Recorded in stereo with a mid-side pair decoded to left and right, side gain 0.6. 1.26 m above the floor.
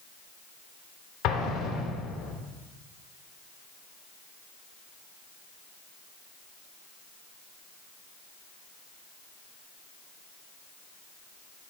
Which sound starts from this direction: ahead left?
An explosion, at 1.2 s.